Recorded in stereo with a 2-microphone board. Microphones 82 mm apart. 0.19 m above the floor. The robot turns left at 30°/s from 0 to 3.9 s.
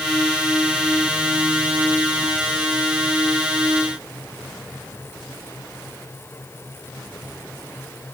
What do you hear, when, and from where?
Only background noise.